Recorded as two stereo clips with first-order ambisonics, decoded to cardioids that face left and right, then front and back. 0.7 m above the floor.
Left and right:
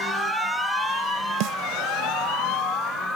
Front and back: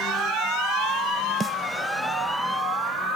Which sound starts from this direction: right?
A snare drum, at 1.4 s.